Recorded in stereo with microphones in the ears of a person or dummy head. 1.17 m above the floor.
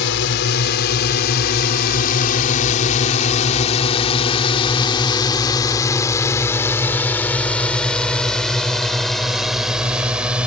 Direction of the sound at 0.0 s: 70° left (ahead or behind).